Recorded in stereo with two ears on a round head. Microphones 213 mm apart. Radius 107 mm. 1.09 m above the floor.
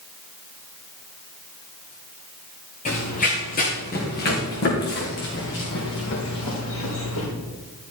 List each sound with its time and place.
2.9 s running footsteps: 30° left (ahead or behind), 3.5 m; by 7.3 s 60° left (ahead or behind), 5.5 m